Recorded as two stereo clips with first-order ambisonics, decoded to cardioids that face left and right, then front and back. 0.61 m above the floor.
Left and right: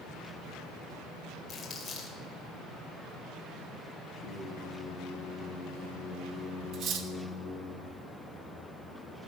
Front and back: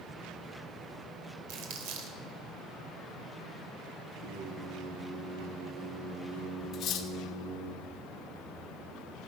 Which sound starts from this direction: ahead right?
Cutlery clinking, at 6.7 s.